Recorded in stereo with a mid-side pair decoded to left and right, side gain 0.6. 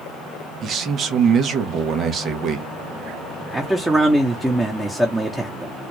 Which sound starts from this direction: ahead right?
A man speaking, at 0.6 s.